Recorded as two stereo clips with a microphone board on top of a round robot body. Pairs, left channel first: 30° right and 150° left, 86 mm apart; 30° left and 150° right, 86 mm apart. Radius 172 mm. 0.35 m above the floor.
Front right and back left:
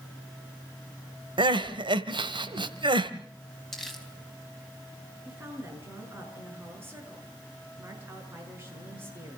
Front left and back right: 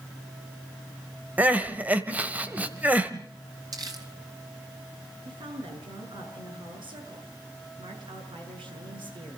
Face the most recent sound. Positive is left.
turn(degrees=-145)